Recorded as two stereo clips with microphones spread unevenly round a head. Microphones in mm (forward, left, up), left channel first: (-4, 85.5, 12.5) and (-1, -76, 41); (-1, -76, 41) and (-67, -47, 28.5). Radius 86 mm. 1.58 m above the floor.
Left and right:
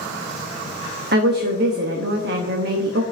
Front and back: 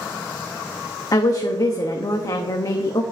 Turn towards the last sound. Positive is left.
turn(degrees=-60)